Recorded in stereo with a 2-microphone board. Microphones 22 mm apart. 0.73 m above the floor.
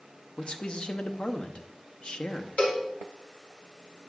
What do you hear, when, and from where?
0.4 s a man speaking: 45° left (ahead or behind), 0.7 m
2.6 s a cowbell: 75° left (ahead or behind), 1.6 m